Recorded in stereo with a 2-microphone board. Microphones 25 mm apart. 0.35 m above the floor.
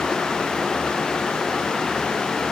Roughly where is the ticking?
No ticking in this recording.